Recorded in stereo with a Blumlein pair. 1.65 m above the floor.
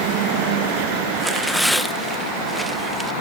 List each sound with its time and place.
1.2 s tearing paper: straight ahead